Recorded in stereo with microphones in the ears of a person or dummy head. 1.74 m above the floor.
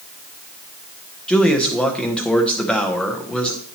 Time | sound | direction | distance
1.3 | a man speaking | centre (ahead or behind) | 0.9 m